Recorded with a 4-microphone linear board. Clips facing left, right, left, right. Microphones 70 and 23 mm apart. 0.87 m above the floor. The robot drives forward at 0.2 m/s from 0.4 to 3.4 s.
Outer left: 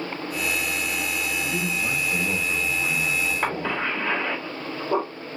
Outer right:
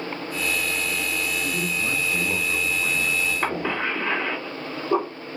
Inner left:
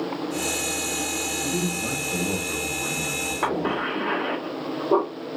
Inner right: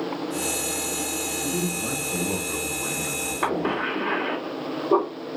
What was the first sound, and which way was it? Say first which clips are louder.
A man speaking: even, inner left 1 dB; 5° left (ahead or behind).